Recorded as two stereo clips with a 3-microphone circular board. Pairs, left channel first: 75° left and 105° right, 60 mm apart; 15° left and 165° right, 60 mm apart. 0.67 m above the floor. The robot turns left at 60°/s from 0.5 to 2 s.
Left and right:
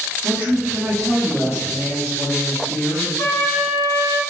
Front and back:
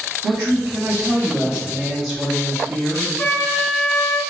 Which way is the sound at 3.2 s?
65° left.